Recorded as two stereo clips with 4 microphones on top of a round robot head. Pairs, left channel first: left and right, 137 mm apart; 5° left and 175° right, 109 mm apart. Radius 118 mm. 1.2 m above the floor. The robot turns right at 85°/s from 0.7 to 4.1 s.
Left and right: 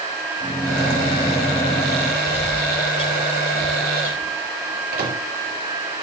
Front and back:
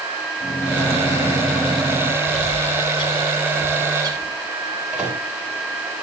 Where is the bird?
20° right, 0.9 m; by 4.3 s 135° left, 0.9 m.